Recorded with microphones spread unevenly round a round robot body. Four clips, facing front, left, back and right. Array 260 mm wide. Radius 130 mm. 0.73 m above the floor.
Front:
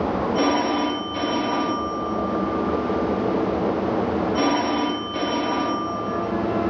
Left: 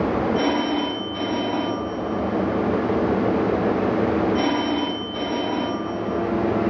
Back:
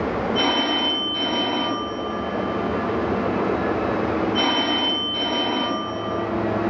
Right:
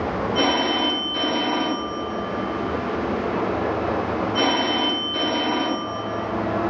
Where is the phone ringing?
40° right, 0.9 m.